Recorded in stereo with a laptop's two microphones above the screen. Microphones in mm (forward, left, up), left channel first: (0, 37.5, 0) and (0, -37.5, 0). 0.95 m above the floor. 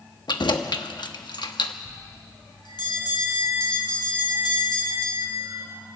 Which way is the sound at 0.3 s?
80° left.